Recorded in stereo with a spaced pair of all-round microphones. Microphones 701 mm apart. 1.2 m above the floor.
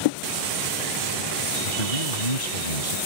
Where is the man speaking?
70° left (ahead or behind).